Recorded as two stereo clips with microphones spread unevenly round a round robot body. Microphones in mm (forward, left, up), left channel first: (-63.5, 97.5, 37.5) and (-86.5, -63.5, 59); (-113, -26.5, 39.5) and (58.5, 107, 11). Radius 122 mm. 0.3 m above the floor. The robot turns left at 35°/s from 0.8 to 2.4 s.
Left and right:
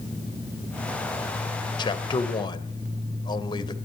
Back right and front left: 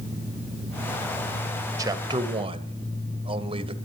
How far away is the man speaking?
About 1.2 m.